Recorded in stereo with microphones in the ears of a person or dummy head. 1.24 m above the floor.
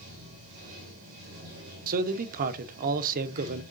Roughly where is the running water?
Right.